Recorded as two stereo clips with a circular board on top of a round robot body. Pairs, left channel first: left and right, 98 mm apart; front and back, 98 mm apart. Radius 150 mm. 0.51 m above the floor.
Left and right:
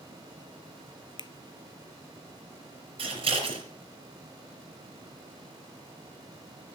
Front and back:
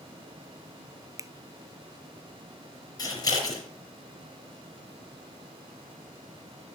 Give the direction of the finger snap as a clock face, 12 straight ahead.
8 o'clock.